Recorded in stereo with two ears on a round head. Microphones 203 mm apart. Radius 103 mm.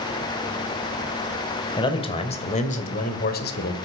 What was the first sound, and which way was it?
A man speaking, 20° left (ahead or behind).